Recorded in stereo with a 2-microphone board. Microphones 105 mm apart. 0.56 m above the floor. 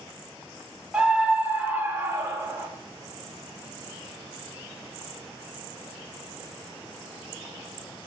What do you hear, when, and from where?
0.9 s a scream: 5° right (ahead or behind), 1.2 m; by 2.7 s 25° right (ahead or behind), 2.5 m